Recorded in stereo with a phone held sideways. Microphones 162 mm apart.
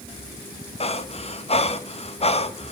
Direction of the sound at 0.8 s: 40° left (ahead or behind).